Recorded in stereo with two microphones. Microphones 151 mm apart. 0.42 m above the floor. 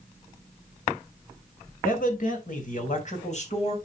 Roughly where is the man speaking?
Left.